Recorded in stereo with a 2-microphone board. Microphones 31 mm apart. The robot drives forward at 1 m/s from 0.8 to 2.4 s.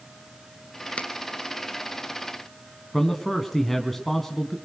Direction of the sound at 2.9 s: 10° left (ahead or behind).